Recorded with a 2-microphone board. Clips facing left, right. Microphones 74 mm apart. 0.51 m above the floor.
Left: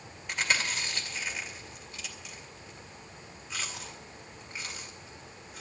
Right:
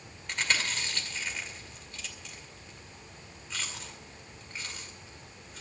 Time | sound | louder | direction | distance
0.3 | chewing | left 1 dB | 10° left (ahead or behind) | 2 m